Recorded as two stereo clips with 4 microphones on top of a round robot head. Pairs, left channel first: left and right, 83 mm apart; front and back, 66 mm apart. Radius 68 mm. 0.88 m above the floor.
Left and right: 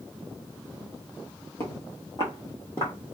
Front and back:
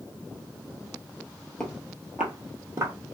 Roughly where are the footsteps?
Left.